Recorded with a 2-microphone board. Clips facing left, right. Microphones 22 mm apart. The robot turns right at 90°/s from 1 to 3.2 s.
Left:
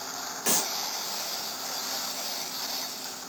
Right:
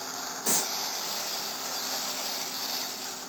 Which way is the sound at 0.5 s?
60° left (ahead or behind).